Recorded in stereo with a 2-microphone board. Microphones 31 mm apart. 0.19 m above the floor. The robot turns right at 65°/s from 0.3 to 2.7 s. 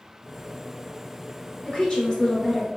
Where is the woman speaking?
25° left (ahead or behind), 1.1 m; by 2.7 s centre (ahead or behind), 1.1 m.